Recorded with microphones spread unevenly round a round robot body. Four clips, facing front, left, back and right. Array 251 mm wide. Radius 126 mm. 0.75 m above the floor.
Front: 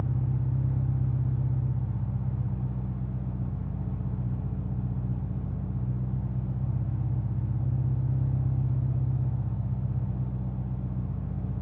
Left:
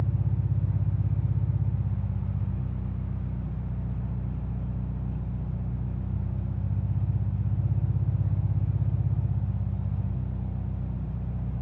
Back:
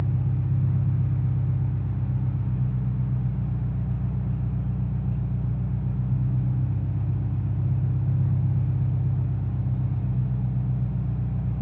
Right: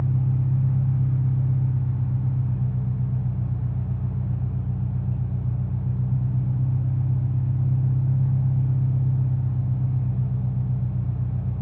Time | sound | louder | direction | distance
0.0 | an engine running | right 6 dB, back 3 dB | 160° right | 2 m